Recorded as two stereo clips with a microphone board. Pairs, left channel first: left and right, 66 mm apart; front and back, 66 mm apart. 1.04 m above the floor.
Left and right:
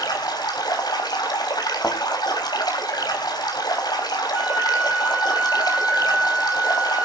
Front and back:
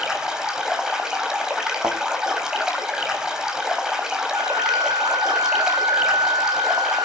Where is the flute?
165° right, 0.7 m.